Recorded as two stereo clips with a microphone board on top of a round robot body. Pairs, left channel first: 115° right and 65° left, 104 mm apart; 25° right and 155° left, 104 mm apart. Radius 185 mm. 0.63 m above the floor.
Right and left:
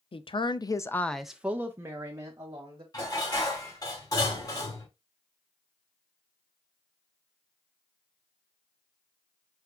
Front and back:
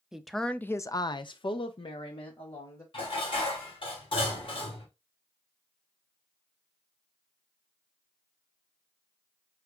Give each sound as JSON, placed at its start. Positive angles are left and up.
{"t": 0.1, "sound": "a woman speaking", "azimuth_deg": -120, "distance_m": 0.8}
{"t": 2.9, "sound": "dishes clattering", "azimuth_deg": -60, "distance_m": 2.5}